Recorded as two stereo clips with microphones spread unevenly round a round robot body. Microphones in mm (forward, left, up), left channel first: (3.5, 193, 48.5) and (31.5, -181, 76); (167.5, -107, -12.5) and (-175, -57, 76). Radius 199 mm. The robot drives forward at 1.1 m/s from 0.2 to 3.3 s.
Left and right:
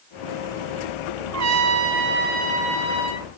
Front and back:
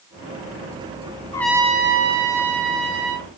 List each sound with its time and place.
1.3 s a trumpet: 60° right, 0.9 m; by 3.3 s 165° right, 2 m